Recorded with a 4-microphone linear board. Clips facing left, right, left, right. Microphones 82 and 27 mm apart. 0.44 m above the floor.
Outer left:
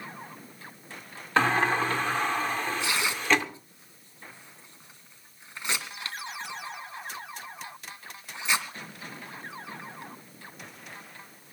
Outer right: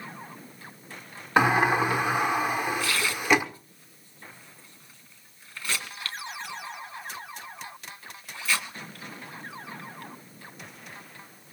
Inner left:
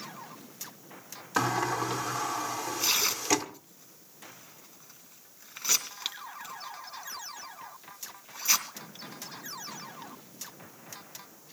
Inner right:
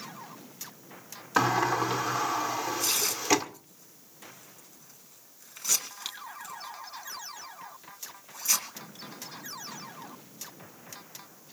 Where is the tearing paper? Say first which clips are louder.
Outer right 1 dB, inner left 1 dB; 20° left (ahead or behind), 3 m.